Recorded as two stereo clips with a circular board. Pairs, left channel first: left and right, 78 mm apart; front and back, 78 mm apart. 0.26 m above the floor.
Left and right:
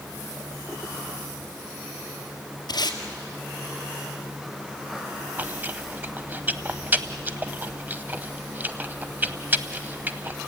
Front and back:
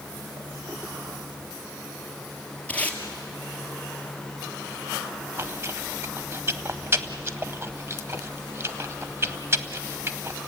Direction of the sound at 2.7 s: 70° left.